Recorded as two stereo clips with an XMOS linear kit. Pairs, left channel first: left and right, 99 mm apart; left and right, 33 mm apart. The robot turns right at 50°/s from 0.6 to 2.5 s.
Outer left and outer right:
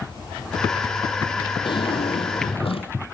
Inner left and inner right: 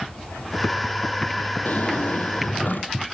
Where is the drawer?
60° left, 2 m; by 2.9 s 100° left, 2 m.